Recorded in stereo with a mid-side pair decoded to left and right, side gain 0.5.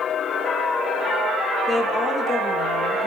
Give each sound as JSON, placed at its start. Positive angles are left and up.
{"t": 1.7, "sound": "a woman speaking", "azimuth_deg": 35, "distance_m": 3.5}